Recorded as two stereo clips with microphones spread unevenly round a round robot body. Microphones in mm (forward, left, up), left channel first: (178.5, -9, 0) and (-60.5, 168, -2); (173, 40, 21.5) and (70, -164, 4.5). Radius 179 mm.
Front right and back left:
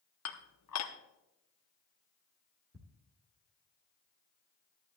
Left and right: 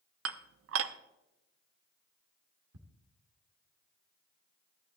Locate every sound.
0.2 s dishes clattering: 90° right, 0.7 m
2.7 s ticking: 150° right, 1.5 m